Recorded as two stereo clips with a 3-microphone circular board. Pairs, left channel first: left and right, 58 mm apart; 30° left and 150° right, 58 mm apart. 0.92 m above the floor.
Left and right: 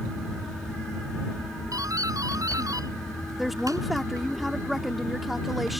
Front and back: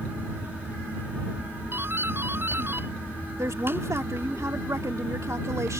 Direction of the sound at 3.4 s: Straight behind.